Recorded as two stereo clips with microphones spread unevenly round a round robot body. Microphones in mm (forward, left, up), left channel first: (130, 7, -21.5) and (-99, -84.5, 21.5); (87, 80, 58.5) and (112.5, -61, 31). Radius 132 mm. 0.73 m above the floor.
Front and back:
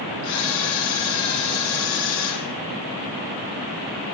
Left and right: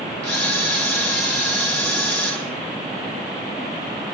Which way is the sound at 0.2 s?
15° left.